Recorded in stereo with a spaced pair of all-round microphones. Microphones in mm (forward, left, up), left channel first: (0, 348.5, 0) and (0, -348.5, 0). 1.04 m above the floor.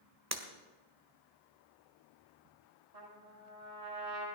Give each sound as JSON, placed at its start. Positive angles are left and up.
{"t": 0.3, "sound": "breaking glass", "side_deg": -25, "distance_m": 1.7}
{"t": 2.9, "sound": "a trumpet", "side_deg": -60, "distance_m": 9.5}